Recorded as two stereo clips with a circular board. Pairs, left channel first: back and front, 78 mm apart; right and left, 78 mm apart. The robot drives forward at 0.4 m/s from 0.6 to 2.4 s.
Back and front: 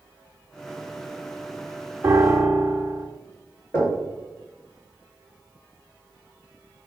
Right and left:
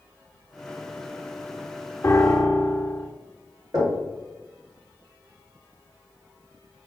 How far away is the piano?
About 0.6 m.